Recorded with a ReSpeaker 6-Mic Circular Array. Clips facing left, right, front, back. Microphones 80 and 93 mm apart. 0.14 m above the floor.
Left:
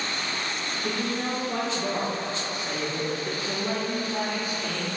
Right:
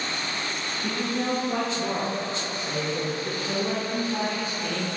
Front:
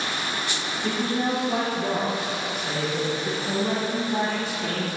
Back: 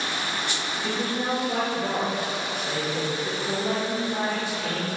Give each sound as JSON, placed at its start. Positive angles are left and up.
{"t": 0.8, "sound": "a man speaking", "azimuth_deg": -65, "distance_m": 1.5}